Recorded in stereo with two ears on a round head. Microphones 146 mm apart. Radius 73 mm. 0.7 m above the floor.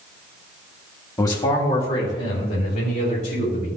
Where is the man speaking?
20° left (ahead or behind), 1.3 m; by 3.7 s 60° left (ahead or behind), 4 m.